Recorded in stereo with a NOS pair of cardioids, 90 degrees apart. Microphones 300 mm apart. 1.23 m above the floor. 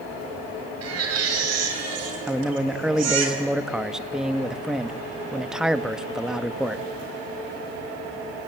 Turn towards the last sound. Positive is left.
turn(degrees=0)